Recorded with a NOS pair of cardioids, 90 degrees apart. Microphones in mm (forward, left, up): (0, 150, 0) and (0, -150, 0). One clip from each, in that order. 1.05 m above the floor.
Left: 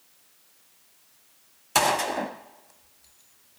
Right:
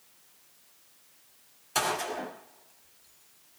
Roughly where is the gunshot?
Ahead left.